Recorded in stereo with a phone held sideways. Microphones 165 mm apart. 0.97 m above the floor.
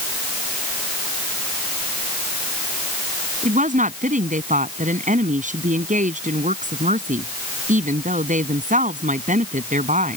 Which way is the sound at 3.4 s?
45° right (ahead or behind).